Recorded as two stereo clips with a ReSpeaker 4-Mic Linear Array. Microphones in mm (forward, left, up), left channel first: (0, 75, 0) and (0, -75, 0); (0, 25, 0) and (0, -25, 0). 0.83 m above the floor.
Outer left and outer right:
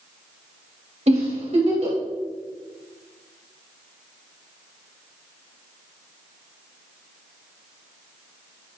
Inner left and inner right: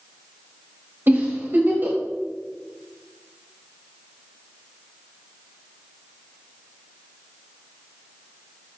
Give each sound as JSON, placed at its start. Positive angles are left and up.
{"t": 1.1, "sound": "a giggle", "side_deg": -45, "distance_m": 2.5}